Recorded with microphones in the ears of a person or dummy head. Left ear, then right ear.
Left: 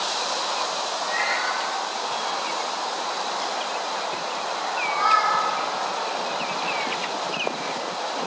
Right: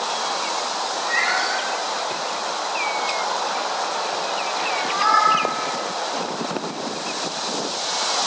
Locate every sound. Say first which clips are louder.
1.0 s a cat meowing: right 4 dB; 40° right (ahead or behind), 1.2 m; by 5.4 s 30° right (ahead or behind), 2.5 m